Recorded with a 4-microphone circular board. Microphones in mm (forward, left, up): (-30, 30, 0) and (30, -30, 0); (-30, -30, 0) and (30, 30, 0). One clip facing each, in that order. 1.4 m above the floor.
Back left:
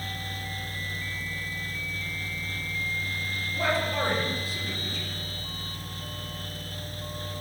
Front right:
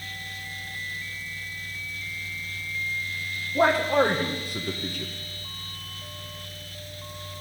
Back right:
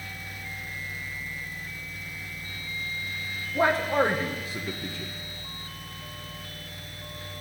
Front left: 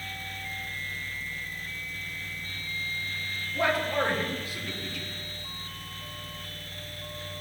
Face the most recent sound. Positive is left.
turn(degrees=-80)